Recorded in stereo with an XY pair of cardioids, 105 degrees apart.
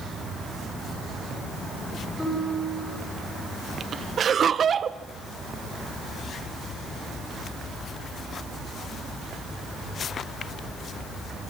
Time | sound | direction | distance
2.2 | a piano | 15° left | 8.5 m
4.2 | laughter | 45° right | 1.0 m